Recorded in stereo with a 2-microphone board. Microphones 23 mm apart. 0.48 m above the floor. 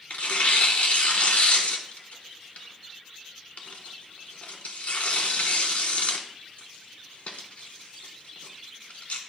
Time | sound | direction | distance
0.1 | tearing paper | 80° left | 1.0 m